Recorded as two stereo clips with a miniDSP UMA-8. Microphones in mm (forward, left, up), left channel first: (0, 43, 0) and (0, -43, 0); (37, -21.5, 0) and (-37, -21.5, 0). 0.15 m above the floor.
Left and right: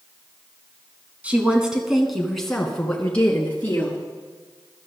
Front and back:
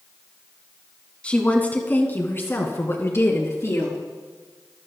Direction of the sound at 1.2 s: 45° right.